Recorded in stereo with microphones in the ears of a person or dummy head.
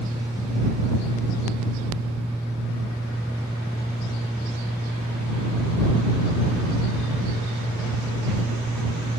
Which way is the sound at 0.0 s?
Centre (ahead or behind).